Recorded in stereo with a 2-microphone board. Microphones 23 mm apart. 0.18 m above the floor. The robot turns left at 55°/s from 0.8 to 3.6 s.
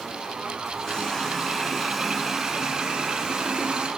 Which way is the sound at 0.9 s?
60° left.